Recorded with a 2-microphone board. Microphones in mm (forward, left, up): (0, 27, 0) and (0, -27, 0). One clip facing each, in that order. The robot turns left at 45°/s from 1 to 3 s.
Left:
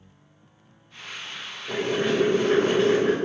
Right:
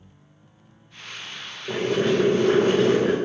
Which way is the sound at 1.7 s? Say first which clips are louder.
Right 2 dB; 35° right.